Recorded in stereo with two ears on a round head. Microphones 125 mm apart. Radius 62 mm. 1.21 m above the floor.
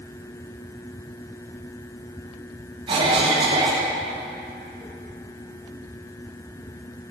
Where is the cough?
35° right (ahead or behind), 1.1 m.